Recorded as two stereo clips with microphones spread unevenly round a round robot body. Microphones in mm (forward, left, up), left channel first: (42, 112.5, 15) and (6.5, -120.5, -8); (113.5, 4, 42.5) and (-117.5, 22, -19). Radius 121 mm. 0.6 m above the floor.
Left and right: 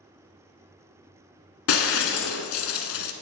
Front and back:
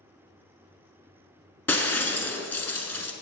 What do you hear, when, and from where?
1.7 s breaking glass: 70° left, 0.9 m